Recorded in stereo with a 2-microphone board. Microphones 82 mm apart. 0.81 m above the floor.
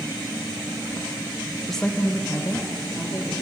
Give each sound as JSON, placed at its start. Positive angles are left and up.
{"t": 1.7, "sound": "a woman speaking", "side_deg": 0, "distance_m": 0.5}